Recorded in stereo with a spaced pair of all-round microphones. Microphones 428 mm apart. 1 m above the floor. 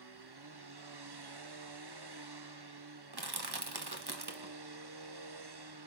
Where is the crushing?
60° right (ahead or behind), 1.3 m.